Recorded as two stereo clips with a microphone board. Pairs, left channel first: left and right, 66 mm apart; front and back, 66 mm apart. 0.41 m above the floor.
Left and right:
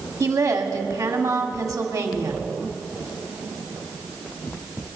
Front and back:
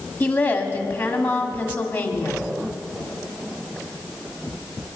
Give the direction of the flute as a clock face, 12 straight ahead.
No flute in this recording.